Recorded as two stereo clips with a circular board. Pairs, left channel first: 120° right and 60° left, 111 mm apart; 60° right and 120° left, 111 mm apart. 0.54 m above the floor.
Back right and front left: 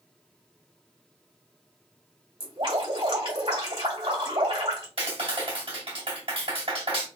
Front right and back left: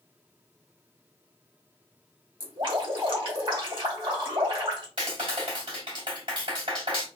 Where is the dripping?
85° left, 2 m.